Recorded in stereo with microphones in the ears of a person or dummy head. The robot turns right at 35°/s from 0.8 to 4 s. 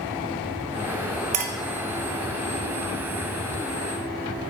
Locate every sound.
1.3 s a clink: 45° right (ahead or behind), 0.6 m; by 1.5 s 55° right (ahead or behind), 0.6 m